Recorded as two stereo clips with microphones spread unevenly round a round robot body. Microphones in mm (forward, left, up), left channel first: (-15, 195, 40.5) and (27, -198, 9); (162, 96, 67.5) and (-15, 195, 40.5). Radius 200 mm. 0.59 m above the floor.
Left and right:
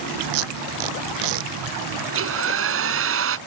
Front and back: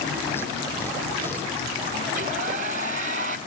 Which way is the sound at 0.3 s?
115° right.